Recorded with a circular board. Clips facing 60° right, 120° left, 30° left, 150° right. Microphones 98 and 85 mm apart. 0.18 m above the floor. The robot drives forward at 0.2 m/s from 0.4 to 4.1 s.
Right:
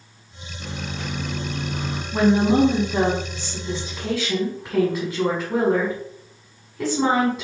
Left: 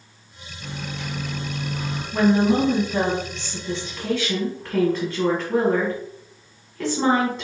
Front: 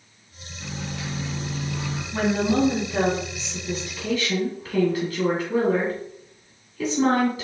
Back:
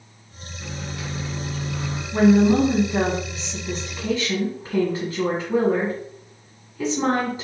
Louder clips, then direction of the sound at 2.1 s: Right 1 dB, back 7 dB; 95° right.